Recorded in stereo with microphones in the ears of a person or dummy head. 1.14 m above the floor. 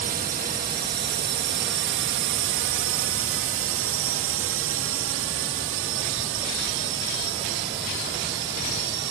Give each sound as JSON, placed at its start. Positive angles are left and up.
{"t": 0.0, "sound": "a drone", "side_deg": -40}